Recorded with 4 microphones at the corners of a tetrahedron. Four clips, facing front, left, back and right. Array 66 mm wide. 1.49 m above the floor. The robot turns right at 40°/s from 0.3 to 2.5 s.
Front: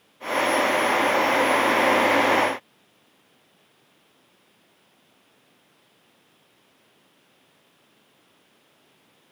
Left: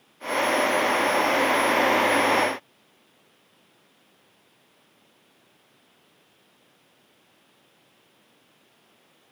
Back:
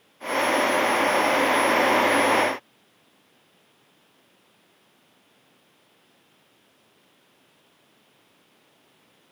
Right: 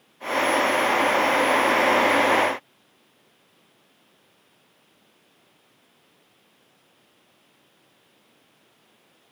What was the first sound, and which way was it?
Only background noise.